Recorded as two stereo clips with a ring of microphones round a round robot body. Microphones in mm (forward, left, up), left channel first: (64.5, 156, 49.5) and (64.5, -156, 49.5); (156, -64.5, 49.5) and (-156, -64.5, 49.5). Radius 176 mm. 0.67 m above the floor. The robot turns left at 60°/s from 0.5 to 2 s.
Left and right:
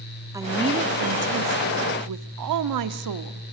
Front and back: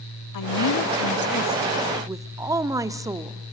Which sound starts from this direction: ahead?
A woman speaking, at 0.3 s.